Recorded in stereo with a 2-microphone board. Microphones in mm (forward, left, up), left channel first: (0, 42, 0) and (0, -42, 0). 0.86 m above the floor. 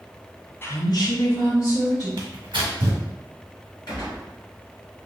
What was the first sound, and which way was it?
A woman speaking, 25° left (ahead or behind).